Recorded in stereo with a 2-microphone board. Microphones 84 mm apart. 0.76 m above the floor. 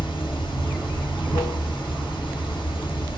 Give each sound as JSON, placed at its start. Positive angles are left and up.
{"t": 0.0, "sound": "running water", "side_deg": 75, "distance_m": 1.3}